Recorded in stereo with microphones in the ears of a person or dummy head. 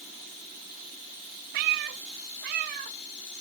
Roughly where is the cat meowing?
Right.